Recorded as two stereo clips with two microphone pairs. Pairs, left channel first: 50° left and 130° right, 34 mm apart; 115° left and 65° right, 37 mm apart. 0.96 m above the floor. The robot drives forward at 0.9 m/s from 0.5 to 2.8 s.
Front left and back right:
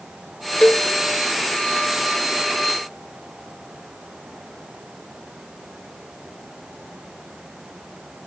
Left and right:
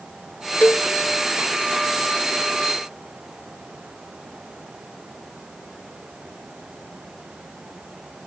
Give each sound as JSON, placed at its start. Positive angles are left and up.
{"t": 0.6, "sound": "a cowbell", "azimuth_deg": 90}